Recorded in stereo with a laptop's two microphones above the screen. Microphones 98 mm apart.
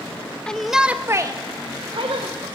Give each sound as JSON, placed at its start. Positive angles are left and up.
{"t": 0.5, "sound": "a shout", "side_deg": 10, "distance_m": 1.7}